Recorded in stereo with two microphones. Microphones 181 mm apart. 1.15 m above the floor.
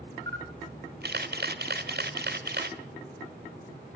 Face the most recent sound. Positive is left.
turn(degrees=-65)  # may be behind; listen again after turning